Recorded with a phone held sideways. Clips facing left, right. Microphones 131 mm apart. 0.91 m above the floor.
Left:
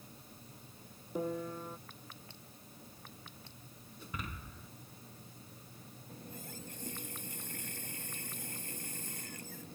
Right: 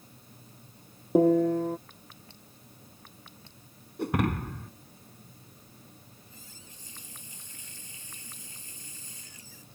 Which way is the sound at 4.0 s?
75° right (ahead or behind).